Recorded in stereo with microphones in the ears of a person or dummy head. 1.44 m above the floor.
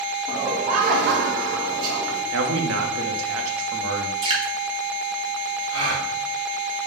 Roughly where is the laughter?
Right.